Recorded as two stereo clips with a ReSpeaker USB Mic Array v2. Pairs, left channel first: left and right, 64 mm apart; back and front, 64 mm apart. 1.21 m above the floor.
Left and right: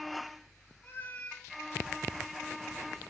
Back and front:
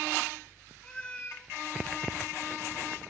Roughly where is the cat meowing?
Behind left.